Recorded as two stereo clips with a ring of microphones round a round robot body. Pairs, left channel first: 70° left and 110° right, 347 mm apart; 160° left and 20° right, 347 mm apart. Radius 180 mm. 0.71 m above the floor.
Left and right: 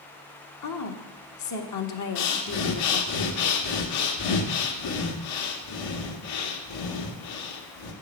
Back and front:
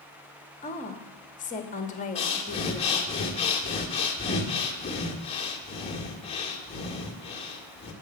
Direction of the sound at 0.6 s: 90° left.